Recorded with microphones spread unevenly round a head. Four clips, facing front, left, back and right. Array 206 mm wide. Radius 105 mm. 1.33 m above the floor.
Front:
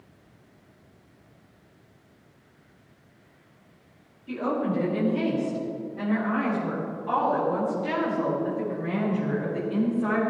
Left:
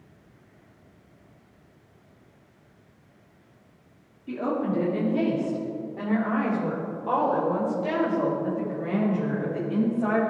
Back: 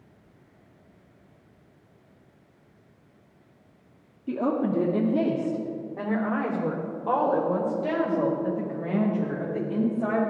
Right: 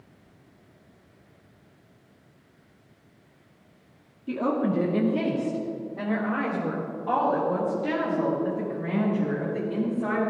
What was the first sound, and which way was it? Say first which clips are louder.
A woman speaking: right 2 dB, back 2 dB; 165° right.